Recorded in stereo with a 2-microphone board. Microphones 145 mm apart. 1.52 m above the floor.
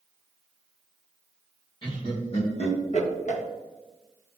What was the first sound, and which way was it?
Laughter, 35° left (ahead or behind).